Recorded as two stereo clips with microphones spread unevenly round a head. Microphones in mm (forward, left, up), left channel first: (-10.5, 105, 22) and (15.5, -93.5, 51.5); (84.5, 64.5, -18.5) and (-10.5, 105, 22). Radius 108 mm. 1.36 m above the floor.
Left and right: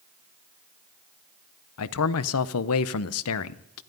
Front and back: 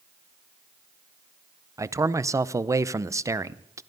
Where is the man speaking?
100° left, 0.7 m.